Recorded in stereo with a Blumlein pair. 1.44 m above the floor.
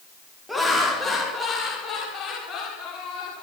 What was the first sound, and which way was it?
Laughter, straight ahead.